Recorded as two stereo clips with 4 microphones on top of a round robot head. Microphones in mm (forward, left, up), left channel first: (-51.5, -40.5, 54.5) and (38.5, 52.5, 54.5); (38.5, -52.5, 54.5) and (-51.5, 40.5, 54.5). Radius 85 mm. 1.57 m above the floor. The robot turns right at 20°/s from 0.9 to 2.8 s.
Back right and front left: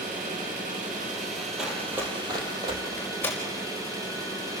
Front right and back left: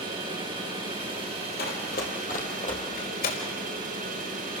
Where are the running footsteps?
40° right, 3.5 m; by 2.8 s 5° right, 4 m.